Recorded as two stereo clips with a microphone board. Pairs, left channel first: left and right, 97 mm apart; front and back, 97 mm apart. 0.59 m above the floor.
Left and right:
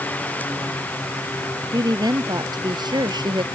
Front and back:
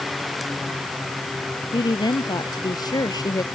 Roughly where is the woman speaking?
Ahead right.